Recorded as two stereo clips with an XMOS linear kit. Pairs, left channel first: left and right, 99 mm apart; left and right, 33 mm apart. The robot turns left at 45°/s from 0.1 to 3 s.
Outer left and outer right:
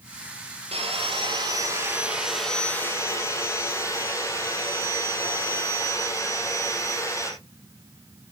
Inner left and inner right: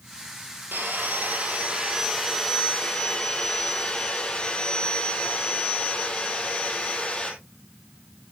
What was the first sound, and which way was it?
Sawing, 105° right.